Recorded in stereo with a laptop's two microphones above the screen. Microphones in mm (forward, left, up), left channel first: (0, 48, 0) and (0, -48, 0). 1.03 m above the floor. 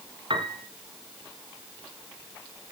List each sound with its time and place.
0.3 s a piano: 60° right (ahead or behind), 2.0 m